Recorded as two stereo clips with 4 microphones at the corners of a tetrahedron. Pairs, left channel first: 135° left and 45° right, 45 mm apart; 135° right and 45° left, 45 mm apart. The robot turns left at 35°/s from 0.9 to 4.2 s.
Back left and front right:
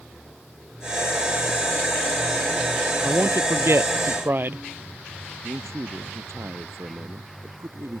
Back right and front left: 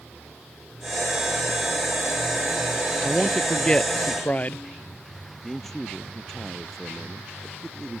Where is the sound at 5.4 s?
50° right.